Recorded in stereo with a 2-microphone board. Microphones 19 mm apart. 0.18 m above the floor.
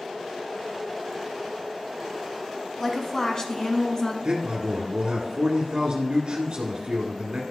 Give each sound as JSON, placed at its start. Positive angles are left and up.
{"t": 2.8, "sound": "a woman speaking", "side_deg": 15, "distance_m": 1.0}
{"t": 4.2, "sound": "a man speaking", "side_deg": -40, "distance_m": 1.6}